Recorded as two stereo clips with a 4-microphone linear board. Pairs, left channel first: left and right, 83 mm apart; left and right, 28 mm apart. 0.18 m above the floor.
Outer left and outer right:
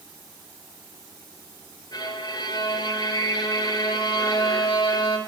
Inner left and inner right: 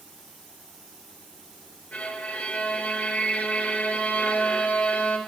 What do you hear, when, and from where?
1.9 s a violin: 50° left (ahead or behind), 3.5 m